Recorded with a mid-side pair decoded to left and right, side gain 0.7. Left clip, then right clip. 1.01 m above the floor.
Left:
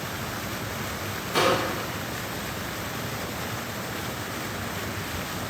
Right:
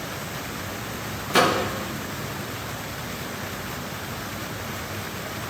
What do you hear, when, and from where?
1.3 s a microwave: 30° right, 1.0 m